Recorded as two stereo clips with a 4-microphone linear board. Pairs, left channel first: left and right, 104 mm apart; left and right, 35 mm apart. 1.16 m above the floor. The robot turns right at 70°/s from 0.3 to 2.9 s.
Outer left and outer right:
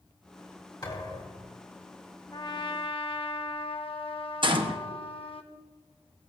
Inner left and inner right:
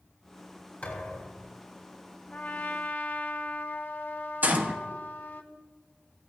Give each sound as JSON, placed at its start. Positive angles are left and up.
{"t": 0.8, "sound": "a thud", "azimuth_deg": 45, "distance_m": 3.5}
{"t": 2.3, "sound": "a trumpet", "azimuth_deg": 50, "distance_m": 1.0}
{"t": 4.4, "sound": "a gunshot", "side_deg": -50, "distance_m": 1.0}